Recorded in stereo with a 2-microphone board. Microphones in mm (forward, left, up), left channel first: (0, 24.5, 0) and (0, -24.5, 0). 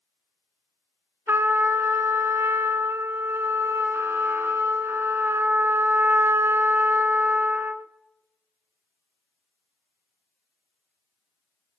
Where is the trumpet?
55° right (ahead or behind), 0.6 m.